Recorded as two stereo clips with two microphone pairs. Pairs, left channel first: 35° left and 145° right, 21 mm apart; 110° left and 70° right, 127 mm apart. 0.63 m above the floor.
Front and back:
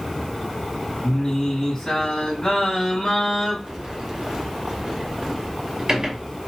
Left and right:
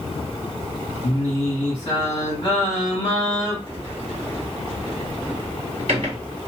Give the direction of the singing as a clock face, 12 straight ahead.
9 o'clock.